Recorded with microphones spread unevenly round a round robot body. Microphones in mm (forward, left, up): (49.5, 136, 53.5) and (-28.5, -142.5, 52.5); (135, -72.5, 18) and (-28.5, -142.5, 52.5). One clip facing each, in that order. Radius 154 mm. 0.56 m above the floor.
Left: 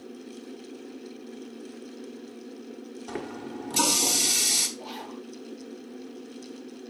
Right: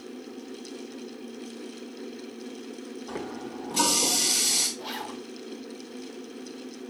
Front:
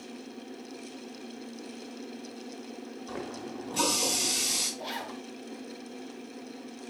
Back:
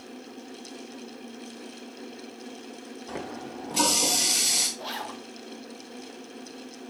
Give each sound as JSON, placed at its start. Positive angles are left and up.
{"t": 3.1, "sound": "a running tap", "azimuth_deg": 120, "distance_m": 1.5}
{"t": 4.8, "sound": "a zipper", "azimuth_deg": -45, "distance_m": 2.0}